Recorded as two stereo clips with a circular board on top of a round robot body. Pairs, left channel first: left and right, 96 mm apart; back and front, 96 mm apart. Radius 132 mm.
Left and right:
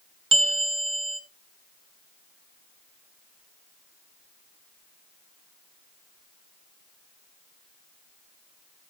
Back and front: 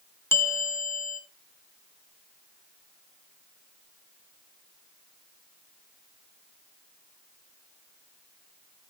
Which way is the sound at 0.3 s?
115° right.